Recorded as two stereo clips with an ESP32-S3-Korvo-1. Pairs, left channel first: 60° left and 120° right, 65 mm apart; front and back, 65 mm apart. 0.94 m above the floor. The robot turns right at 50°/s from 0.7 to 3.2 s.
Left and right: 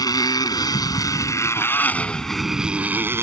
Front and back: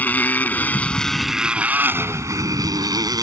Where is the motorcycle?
65° left; by 3.2 s 170° right.